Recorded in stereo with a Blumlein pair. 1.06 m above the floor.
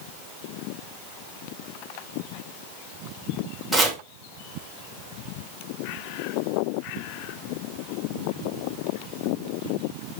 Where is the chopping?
Straight ahead, 2.5 m.